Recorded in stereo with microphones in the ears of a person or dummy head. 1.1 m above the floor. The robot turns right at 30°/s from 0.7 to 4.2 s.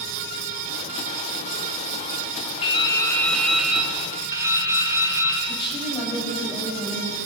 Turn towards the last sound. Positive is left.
turn(degrees=25)  # may be behind; listen again after turning